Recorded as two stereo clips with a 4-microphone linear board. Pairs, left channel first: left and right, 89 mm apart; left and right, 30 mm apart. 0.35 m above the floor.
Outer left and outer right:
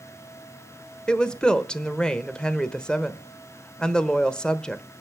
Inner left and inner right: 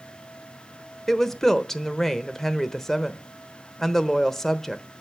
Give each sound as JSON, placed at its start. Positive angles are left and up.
{"t": 1.1, "sound": "a woman speaking", "side_deg": 10, "distance_m": 0.9}